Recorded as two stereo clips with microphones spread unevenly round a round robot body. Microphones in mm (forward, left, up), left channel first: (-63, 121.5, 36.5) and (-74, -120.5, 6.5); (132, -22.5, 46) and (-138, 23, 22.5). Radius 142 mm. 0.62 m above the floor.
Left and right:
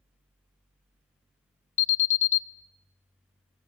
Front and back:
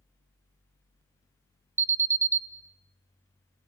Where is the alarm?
115° left, 0.7 m.